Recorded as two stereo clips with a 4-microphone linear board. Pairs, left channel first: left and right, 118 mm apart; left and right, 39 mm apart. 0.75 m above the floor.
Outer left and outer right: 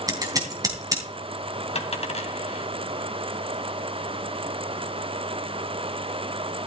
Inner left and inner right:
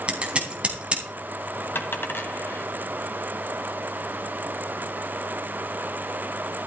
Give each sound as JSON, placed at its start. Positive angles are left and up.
{"t": 0.1, "sound": "scissors", "side_deg": -30, "distance_m": 3.5}
{"t": 1.8, "sound": "a dropped coin", "side_deg": 65, "distance_m": 2.5}